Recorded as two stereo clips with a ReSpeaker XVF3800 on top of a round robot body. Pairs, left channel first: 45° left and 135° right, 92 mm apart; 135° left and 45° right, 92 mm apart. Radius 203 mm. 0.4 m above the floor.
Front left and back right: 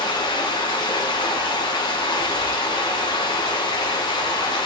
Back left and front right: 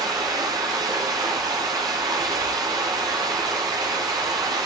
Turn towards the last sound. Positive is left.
turn(degrees=5)